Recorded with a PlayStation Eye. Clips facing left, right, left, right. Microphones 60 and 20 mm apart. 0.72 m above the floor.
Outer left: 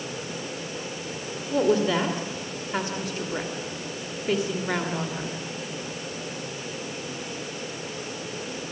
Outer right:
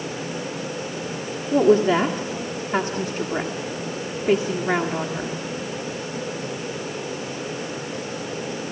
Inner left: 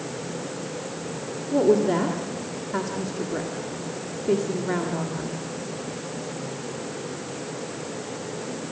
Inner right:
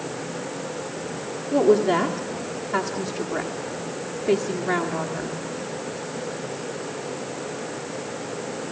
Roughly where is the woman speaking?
Right.